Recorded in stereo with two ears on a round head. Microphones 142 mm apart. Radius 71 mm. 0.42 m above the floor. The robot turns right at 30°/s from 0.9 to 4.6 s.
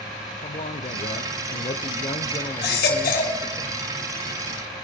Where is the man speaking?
90° left, 0.9 m; by 3.6 s 175° left, 0.9 m.